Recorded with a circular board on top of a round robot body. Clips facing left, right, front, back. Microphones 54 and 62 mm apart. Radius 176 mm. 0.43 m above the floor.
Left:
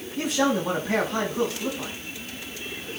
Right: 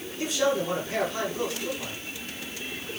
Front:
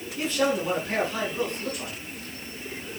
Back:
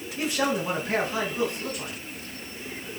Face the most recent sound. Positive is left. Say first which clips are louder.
# left 2 dB, front 1 dB
turn(degrees=100)